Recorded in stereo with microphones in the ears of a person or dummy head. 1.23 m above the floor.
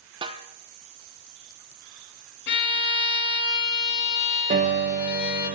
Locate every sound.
0.2 s a snare drum: 25° right (ahead or behind), 1.0 m
2.5 s a violin: 65° left (ahead or behind), 2.5 m
4.5 s a piano: 40° right (ahead or behind), 0.8 m